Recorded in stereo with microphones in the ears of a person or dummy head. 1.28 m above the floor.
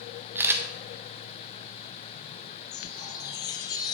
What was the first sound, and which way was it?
A camera shutter, 10° right (ahead or behind).